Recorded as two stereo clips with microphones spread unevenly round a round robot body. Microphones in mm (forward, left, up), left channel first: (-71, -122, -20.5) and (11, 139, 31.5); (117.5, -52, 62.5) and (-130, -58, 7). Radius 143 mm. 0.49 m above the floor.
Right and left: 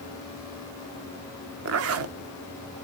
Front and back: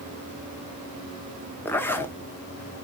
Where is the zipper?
95° left, 0.8 m.